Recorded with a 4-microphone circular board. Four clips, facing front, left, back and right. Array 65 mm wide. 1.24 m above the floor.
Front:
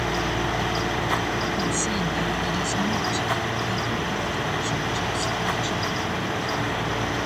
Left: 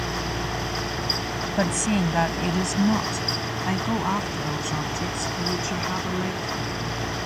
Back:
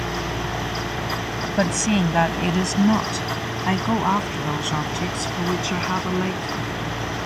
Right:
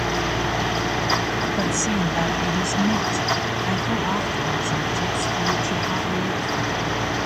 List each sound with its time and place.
1.6 s a woman speaking: 165° left; by 6.7 s 170° right